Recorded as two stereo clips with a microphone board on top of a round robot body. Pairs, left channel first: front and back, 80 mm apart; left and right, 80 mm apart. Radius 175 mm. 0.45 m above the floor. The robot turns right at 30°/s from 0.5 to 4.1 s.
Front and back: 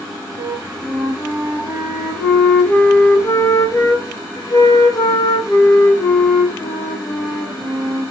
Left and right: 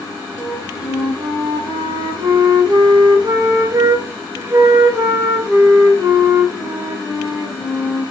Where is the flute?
140° right, 2.5 m; by 8.0 s 30° right, 2.5 m.